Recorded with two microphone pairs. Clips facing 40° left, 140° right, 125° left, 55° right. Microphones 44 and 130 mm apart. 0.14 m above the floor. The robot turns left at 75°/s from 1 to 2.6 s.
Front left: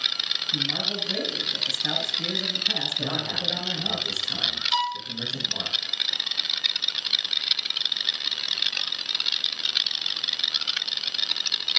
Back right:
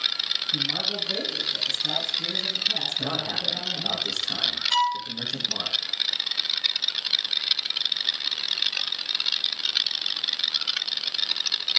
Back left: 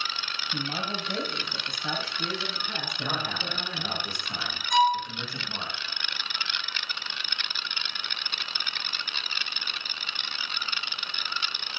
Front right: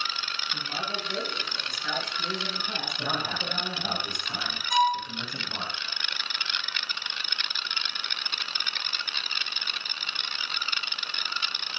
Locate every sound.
0.5 s a man speaking: 120° left, 3 m; by 4.0 s straight ahead, 3 m
3.0 s a man speaking: 130° right, 5.5 m
4.7 s a violin: 145° right, 1.6 m